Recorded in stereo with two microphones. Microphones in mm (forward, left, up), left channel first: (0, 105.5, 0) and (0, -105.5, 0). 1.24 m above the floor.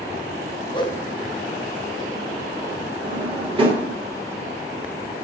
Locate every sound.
0.7 s a whoosh: 20° left (ahead or behind), 0.7 m
3.0 s a drawer: 25° right (ahead or behind), 1.4 m